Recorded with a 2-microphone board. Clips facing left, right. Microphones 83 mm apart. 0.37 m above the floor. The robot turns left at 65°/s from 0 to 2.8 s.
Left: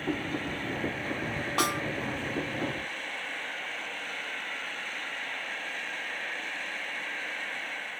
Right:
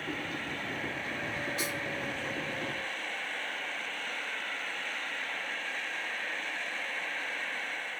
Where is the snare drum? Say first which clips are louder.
Left 7 dB; 70° left (ahead or behind); by 1.8 s 60° left (ahead or behind).